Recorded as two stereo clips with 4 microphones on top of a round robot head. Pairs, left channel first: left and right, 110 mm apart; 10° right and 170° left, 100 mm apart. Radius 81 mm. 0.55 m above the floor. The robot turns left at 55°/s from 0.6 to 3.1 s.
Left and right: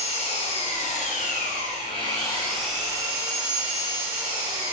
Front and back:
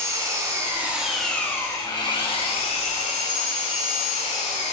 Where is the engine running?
110° left, 3 m; by 4.7 s 25° right, 3 m.